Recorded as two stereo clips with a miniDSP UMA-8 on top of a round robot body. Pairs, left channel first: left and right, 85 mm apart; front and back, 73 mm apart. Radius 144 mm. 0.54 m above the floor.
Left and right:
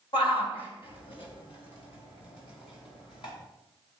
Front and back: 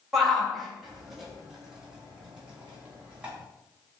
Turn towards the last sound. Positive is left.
turn(degrees=105)